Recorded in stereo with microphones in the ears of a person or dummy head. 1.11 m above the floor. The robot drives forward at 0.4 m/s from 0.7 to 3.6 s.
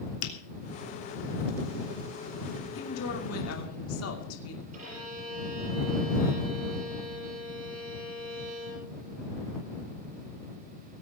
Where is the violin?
40° right (ahead or behind), 7.5 m.